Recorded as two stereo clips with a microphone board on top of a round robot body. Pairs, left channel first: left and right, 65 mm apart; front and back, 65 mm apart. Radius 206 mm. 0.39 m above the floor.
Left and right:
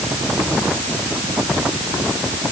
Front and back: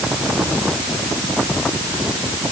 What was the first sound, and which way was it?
Only background noise.